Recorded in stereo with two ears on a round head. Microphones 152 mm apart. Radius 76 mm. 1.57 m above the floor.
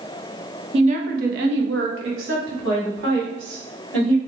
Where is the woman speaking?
35° right (ahead or behind), 0.7 m; by 4.2 s 70° right (ahead or behind), 2.5 m.